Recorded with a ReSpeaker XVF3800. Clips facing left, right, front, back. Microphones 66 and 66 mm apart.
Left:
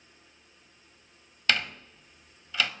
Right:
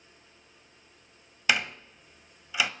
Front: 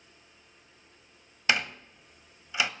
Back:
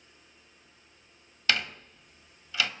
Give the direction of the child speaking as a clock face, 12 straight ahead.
No child speaking in this recording.